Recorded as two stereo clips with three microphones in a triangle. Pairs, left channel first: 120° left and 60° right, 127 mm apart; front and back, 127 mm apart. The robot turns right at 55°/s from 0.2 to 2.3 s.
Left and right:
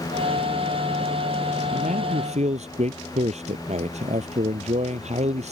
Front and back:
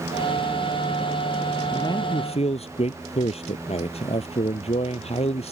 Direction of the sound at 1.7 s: 65° right.